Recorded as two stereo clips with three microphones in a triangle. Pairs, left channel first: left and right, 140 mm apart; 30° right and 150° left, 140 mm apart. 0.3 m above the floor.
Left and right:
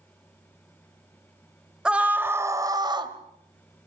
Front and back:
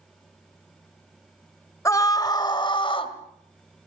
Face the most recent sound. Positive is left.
turn(degrees=-55)